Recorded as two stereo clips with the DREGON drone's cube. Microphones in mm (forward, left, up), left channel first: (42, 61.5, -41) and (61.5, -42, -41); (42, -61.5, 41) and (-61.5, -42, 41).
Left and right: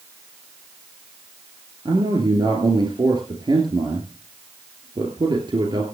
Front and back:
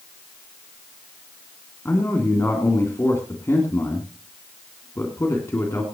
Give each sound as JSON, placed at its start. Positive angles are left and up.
{"t": 1.9, "sound": "a man speaking", "azimuth_deg": -65, "distance_m": 2.0}